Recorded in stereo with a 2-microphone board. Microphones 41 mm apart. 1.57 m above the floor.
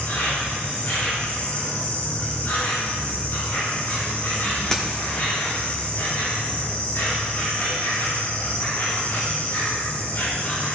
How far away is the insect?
About 3.5 m.